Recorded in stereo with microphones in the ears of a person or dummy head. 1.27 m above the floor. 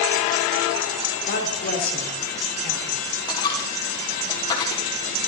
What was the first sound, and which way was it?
A woman speaking, 50° left (ahead or behind).